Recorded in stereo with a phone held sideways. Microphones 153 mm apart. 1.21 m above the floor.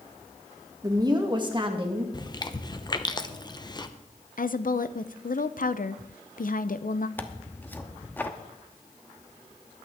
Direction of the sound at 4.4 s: 65° left (ahead or behind).